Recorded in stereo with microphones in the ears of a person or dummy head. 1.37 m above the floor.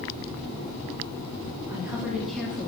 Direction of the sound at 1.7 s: 15° right (ahead or behind).